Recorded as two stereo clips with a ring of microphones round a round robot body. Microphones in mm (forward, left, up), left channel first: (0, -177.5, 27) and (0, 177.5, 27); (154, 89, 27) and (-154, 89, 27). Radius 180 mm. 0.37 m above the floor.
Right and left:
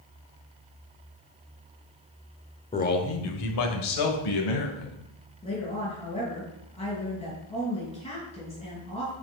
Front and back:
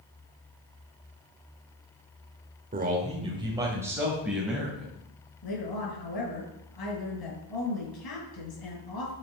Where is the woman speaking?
15° right, 5 m.